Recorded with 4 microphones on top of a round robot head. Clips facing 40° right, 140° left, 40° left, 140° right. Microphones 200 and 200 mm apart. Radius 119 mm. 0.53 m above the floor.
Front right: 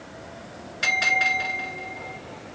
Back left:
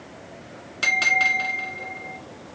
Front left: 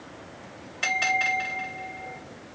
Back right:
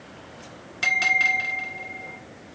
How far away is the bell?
About 1.8 m.